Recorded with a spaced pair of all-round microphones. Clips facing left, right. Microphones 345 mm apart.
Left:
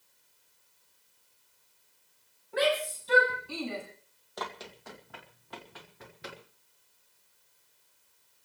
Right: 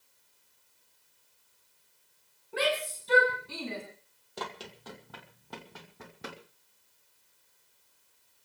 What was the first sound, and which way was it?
A shout, 40° right (ahead or behind).